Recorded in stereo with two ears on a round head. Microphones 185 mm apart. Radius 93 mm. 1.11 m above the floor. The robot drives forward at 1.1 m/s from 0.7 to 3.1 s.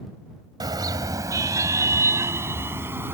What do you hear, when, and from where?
0.6 s a car horn: 20° right (ahead or behind); by 3.1 s 10° right (ahead or behind)